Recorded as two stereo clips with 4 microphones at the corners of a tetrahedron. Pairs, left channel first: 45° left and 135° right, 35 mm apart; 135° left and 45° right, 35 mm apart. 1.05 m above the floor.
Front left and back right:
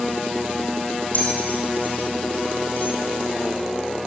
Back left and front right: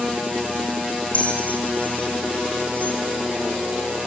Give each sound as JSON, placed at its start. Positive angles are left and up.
{"t": 1.1, "sound": "a bell", "azimuth_deg": 90, "distance_m": 5.0}